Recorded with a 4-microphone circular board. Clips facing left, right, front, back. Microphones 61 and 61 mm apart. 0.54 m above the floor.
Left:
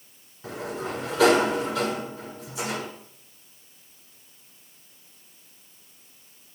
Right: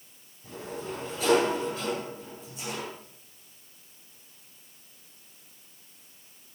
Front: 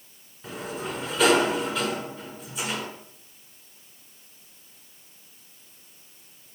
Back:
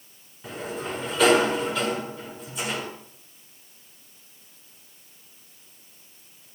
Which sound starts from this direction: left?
A sliding door, at 0.4 s.